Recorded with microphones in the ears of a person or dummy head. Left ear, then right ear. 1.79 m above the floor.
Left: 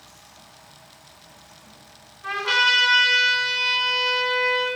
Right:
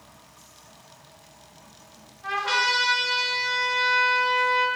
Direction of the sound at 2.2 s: 15° right (ahead or behind).